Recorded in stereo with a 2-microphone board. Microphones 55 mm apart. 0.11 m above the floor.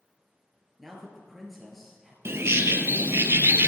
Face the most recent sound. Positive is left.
turn(degrees=-50)  # may be behind; listen again after turning